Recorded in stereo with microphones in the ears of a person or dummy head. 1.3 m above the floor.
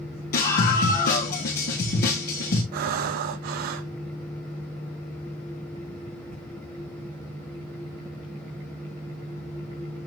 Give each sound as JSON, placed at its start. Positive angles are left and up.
{"t": 0.3, "sound": "a scream", "side_deg": 55, "distance_m": 1.4}
{"t": 2.7, "sound": "breathing", "side_deg": -60, "distance_m": 0.8}